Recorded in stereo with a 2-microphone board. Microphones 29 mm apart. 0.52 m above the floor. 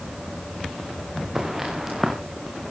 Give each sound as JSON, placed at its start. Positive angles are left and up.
{"t": 1.4, "sound": "footsteps", "side_deg": -10, "distance_m": 3.5}